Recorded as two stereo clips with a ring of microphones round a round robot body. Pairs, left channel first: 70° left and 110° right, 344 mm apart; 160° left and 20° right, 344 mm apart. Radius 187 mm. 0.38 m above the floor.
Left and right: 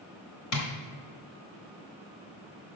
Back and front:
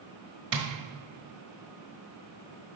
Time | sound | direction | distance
0.5 | tapping | 30° left | 1.3 m